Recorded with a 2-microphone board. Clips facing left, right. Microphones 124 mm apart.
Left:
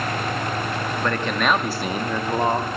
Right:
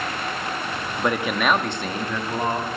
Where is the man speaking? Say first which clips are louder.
Right 2 dB; 15° right (ahead or behind), 1.2 m; by 2.7 s 25° left (ahead or behind), 1.7 m.